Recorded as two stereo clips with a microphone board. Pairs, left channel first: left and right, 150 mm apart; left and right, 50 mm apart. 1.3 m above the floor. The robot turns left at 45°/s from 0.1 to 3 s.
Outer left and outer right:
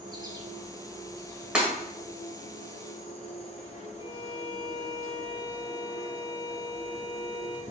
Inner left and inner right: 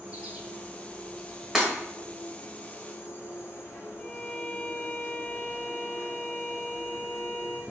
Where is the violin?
30° left (ahead or behind), 0.6 m.